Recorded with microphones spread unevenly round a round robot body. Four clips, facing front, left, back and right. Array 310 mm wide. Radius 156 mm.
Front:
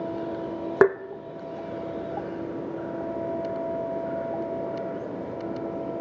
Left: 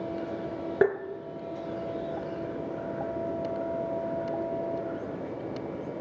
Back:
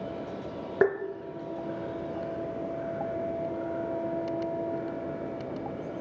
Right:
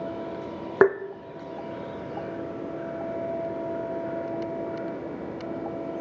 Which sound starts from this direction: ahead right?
Tapping, at 0.8 s.